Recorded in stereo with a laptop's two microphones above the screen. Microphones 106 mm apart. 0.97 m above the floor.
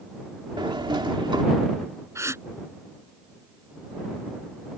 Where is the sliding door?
50° right (ahead or behind).